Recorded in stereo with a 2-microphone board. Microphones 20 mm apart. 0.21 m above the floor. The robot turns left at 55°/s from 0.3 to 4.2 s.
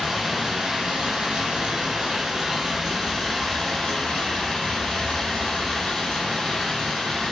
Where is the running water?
30° right, 1.9 m; by 7.3 s 115° left, 1.9 m.